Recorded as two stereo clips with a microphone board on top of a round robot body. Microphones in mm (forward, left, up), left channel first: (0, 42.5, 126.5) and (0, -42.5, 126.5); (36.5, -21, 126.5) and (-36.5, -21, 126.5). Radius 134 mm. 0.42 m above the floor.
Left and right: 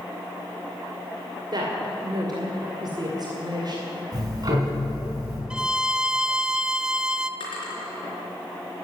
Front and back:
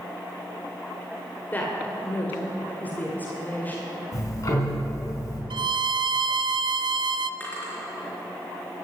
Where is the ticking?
45° right, 4.5 m.